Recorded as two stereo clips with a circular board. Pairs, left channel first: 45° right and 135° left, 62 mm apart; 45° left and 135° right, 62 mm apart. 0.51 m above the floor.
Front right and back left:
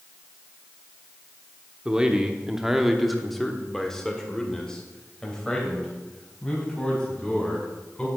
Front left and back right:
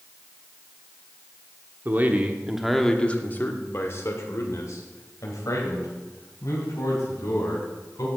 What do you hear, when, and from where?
1.9 s a man speaking: 160° right, 1.2 m; by 8.1 s 30° left, 4.5 m